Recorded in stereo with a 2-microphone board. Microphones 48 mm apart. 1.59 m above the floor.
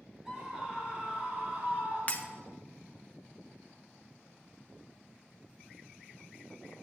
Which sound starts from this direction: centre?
A scream, at 0.2 s.